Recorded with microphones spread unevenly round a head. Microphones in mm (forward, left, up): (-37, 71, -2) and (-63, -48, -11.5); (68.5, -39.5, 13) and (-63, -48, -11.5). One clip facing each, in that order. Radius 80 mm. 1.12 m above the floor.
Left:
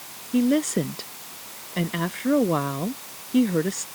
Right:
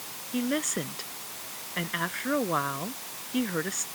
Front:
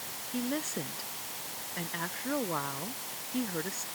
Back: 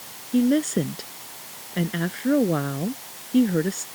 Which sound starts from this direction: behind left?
A woman speaking, at 0.3 s.